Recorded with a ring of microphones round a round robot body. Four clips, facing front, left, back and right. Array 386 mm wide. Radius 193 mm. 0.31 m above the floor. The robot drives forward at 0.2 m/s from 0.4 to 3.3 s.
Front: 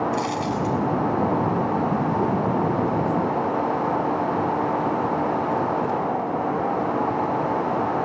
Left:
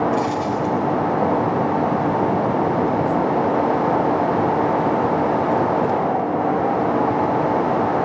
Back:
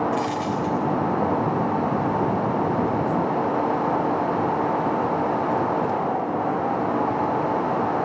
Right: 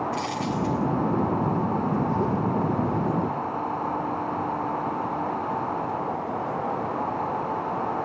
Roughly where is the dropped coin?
Behind.